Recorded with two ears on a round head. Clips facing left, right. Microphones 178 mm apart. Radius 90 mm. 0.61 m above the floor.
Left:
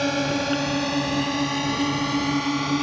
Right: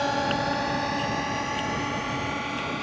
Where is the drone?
35° left (ahead or behind); by 2.8 s 60° left (ahead or behind).